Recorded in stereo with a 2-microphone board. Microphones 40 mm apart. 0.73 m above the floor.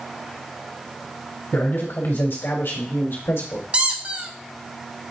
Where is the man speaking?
60° left (ahead or behind), 3 m; by 3.6 s 70° left (ahead or behind), 2 m.